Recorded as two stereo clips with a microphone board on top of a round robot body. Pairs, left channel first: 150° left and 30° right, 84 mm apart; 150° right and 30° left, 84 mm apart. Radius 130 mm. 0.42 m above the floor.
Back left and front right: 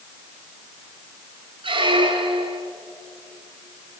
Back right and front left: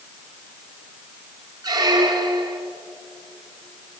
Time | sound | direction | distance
1.6 | a squeak | 15° right | 2.5 m